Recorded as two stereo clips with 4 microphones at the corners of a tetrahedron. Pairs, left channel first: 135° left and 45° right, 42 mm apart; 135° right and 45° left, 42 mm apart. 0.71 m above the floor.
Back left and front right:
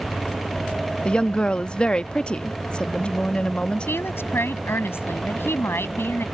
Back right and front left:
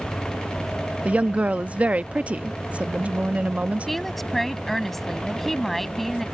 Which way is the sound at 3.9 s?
140° left.